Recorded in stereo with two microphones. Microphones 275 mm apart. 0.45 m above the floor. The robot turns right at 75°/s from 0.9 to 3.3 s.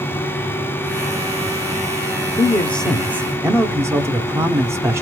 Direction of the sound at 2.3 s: 15° left (ahead or behind).